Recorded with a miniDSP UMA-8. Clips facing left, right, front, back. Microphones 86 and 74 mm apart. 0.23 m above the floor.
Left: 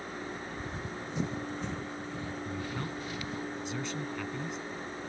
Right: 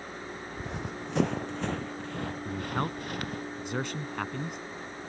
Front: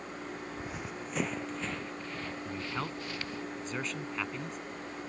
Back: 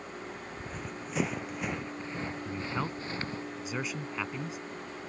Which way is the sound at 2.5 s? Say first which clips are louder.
Right 5 dB, back 2 dB; 100° right.